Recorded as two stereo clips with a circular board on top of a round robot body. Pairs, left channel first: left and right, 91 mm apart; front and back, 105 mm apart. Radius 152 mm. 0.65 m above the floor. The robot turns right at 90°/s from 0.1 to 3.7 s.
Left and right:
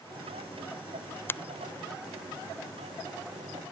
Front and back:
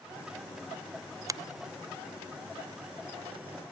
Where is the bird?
No bird in this recording.